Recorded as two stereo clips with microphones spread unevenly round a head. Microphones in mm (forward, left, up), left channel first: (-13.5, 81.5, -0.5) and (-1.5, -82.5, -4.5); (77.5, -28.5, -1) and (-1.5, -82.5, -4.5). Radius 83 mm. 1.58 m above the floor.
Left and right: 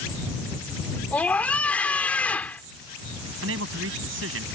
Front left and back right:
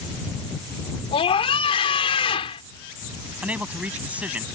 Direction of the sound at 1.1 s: 15° left.